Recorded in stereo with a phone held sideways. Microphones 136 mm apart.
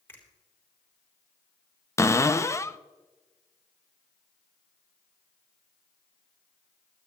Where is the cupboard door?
20° left (ahead or behind), 0.5 m.